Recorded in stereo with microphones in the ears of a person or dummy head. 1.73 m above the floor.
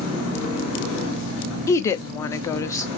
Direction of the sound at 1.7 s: 20° left (ahead or behind).